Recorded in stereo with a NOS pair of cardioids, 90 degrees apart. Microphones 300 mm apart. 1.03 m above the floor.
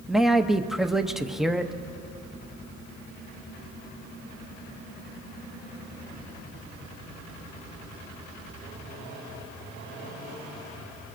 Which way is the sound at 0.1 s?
Straight ahead.